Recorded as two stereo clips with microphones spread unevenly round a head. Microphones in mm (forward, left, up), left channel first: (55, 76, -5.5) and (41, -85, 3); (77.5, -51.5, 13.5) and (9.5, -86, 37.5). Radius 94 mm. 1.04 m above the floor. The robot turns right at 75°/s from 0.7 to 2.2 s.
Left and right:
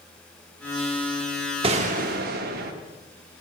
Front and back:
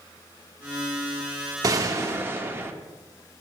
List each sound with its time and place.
1.6 s a gunshot: 150° right, 0.8 m; by 2.7 s 110° right, 0.8 m